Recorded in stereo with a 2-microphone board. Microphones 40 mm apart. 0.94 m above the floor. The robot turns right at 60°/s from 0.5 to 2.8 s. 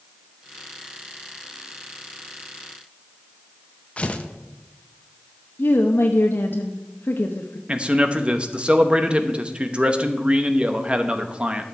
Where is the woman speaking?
60° left (ahead or behind), 0.8 m.